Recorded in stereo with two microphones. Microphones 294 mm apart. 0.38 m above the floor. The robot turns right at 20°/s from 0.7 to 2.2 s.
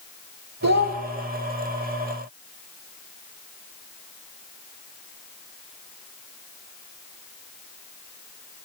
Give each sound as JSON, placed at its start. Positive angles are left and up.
{"t": 0.6, "sound": "a child speaking", "side_deg": -65, "distance_m": 0.9}